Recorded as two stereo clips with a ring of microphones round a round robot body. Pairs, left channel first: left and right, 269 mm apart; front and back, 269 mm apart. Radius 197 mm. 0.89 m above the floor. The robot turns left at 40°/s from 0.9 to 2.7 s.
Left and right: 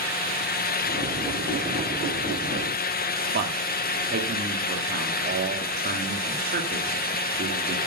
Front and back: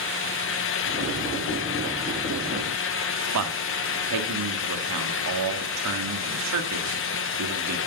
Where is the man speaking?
155° right, 1.9 m.